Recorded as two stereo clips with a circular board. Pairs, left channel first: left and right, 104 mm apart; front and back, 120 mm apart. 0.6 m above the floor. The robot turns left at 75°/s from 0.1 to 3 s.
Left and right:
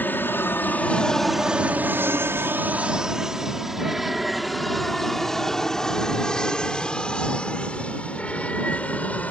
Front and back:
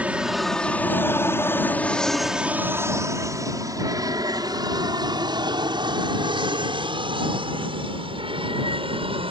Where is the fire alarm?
No fire alarm in this recording.